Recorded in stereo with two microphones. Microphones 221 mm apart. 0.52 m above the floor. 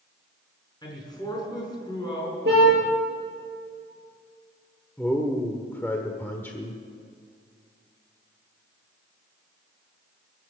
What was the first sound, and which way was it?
A man speaking, 20° left (ahead or behind).